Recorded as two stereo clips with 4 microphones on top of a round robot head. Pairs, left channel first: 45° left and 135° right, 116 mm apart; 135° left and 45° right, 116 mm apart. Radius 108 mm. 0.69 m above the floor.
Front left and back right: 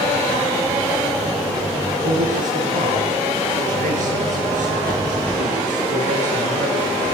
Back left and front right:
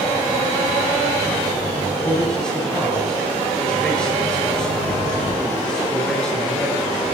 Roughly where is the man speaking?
Behind right.